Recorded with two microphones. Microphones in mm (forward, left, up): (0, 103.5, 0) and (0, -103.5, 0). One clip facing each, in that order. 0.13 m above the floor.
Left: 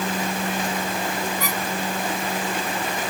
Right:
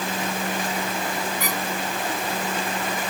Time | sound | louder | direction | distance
1.4 | a squeak | even | 50° right (ahead or behind) | 1.7 m